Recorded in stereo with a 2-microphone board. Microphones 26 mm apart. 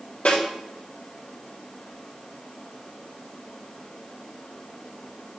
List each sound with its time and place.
0.2 s a snare drum: 70° left (ahead or behind), 4.5 m